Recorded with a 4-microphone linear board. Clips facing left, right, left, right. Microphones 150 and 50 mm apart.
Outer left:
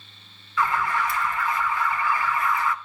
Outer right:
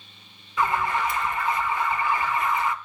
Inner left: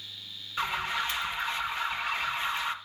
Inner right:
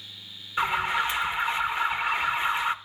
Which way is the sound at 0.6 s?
20° right (ahead or behind).